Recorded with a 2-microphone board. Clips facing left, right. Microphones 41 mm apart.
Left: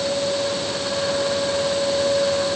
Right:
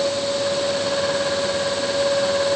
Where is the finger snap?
I don't hear a finger snap.